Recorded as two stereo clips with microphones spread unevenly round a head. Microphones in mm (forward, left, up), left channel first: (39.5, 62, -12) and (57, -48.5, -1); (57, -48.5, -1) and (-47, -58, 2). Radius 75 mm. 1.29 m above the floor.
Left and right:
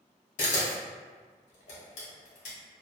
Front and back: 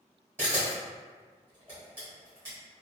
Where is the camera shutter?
115° left, 1.0 m.